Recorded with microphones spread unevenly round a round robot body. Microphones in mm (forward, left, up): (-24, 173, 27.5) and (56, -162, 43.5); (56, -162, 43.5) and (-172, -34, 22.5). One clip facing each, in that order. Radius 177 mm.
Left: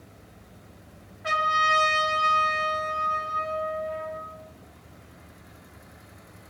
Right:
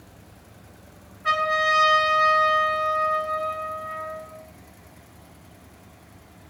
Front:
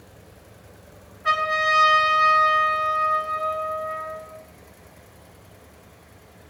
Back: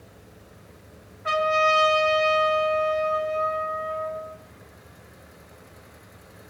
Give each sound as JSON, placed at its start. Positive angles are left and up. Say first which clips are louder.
{"t": 1.2, "sound": "a trumpet", "louder": "right 5 dB, back 5 dB", "azimuth_deg": 30, "distance_m": 0.7}